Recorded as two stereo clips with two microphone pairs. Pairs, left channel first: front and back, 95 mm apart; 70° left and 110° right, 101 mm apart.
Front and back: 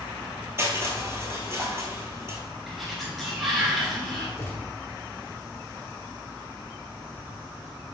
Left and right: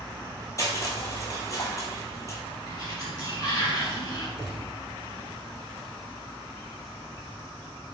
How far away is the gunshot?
About 1.1 m.